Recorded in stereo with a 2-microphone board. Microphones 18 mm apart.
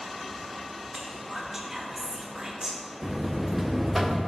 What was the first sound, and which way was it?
Whispering, 35° right (ahead or behind).